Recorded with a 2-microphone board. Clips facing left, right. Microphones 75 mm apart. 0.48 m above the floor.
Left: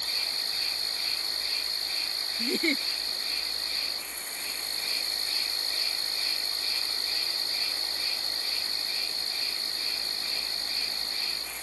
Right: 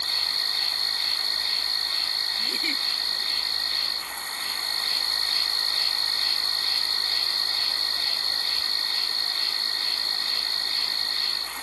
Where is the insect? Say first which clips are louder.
Right 5 dB; 65° right (ahead or behind).